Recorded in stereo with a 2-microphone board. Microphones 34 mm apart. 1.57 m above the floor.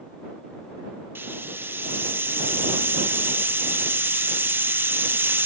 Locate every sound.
1.1 s a hiss: 90° right